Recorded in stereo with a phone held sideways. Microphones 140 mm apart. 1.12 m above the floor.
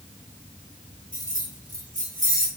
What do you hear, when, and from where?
1.1 s keys jangling: 70° right (ahead or behind), 1.3 m